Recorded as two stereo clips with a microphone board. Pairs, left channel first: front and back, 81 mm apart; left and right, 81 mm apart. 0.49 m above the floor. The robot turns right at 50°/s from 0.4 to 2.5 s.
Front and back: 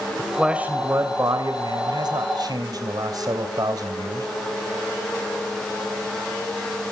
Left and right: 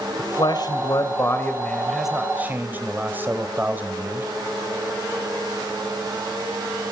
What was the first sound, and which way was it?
A man speaking, 100° left.